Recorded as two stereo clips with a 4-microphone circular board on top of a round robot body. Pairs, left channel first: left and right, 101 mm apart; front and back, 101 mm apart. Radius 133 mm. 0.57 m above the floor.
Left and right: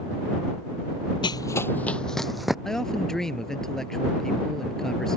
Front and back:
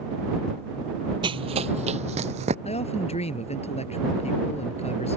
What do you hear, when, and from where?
1.2 s running footsteps: 135° left; by 2.5 s 175° right
2.6 s a man speaking: 5° left